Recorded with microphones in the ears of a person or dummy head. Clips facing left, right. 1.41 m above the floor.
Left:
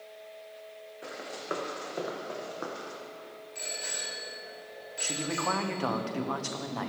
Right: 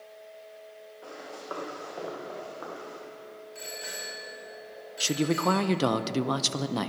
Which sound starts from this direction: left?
Running footsteps, at 1.0 s.